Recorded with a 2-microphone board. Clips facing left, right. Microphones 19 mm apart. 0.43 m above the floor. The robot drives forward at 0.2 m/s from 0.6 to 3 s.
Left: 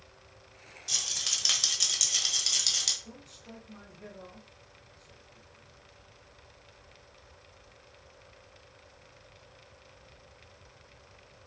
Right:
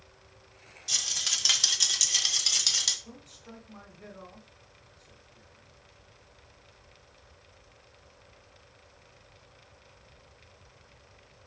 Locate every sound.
0.9 s a rattle: 5° right (ahead or behind), 1.0 m
3.0 s a man speaking: 5° left (ahead or behind), 1.9 m